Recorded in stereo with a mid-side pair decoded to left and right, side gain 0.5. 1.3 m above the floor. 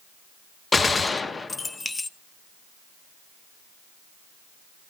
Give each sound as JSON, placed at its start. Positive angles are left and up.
{"t": 0.7, "sound": "a gunshot", "azimuth_deg": 30, "distance_m": 1.0}